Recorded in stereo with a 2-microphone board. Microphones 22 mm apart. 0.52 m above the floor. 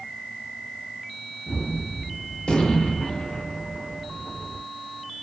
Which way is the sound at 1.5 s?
50° left (ahead or behind).